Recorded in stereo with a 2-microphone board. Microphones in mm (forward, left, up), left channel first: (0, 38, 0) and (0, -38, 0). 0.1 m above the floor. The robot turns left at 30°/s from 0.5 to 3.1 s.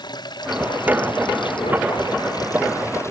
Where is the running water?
115° left; by 3.1 s 40° left.